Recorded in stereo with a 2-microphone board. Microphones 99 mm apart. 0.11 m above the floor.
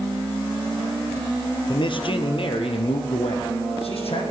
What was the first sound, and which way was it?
A man speaking, 55° left (ahead or behind).